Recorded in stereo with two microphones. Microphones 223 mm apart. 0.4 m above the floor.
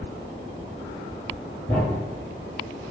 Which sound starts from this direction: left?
A thud, at 1.7 s.